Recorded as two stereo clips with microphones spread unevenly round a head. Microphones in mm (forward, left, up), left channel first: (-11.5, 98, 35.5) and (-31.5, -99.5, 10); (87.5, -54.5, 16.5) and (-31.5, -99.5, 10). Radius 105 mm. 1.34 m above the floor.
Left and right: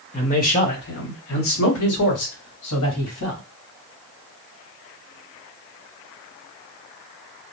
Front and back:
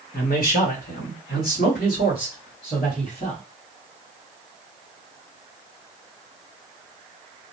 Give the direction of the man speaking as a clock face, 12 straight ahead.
11 o'clock.